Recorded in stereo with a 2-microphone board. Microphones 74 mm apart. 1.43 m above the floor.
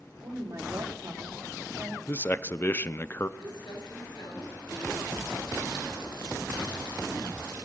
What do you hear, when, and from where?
0.2 s a woman speaking: 50° right (ahead or behind), 3.5 m; by 2.0 s 25° right (ahead or behind), 4.5 m
2.1 s a man speaking: 30° left (ahead or behind), 0.7 m
3.4 s crumpling: 70° left (ahead or behind), 7 m